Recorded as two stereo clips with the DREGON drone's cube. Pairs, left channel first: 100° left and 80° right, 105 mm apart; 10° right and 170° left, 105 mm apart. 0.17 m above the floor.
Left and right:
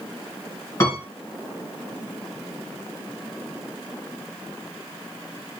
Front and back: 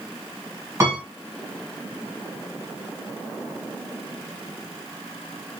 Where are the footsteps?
No footsteps in this recording.